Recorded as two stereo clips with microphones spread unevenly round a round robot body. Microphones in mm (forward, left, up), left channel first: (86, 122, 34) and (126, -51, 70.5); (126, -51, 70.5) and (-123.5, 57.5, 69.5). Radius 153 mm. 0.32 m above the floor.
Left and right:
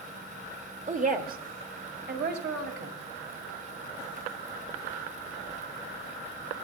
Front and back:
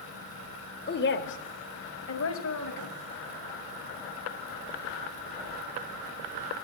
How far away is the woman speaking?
About 1.5 m.